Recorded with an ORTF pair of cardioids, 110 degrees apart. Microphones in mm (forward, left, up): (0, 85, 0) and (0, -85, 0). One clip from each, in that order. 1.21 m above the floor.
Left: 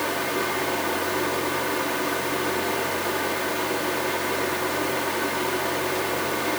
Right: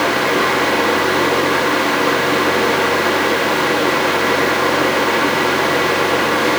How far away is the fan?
About 1.4 m.